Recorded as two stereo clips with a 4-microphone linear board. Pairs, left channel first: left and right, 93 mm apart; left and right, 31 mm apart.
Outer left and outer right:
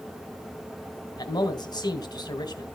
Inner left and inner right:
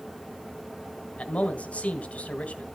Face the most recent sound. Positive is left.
turn(degrees=45)  # may be behind; listen again after turning